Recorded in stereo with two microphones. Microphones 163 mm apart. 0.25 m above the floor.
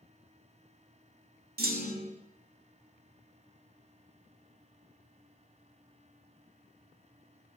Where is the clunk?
70° right (ahead or behind), 0.5 m.